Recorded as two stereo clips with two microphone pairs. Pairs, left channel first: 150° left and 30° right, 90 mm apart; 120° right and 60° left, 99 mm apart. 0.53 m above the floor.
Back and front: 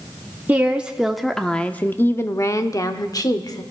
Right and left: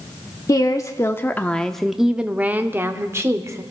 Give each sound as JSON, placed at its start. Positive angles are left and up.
{"t": 0.5, "sound": "a woman speaking", "azimuth_deg": -95, "distance_m": 0.8}